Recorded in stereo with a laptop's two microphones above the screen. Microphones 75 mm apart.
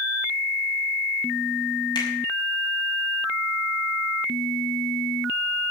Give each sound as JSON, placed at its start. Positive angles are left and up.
{"t": 1.9, "sound": "a finger snap", "side_deg": 70, "distance_m": 6.5}